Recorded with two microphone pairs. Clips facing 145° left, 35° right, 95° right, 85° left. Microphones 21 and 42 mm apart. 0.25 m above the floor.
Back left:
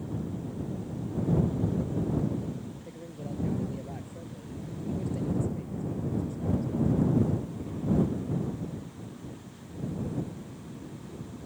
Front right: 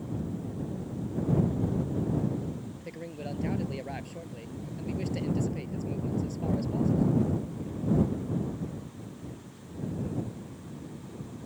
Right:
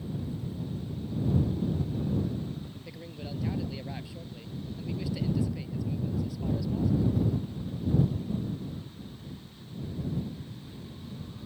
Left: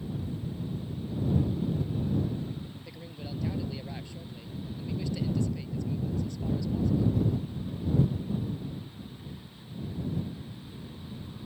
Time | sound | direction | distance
2.8 | a man speaking | 15° right | ?